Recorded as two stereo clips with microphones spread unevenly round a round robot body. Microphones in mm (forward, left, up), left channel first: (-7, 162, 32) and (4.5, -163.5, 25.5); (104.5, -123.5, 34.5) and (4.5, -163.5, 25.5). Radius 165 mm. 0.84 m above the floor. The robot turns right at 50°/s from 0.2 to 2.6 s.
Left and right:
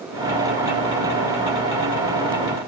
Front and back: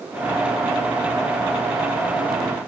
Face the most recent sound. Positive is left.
No sound to turn to.